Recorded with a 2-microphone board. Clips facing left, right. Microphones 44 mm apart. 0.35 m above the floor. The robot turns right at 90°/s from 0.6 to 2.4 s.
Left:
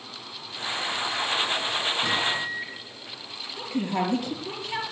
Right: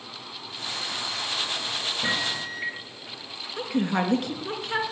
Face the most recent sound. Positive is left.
turn(degrees=-60)  # may be behind; listen again after turning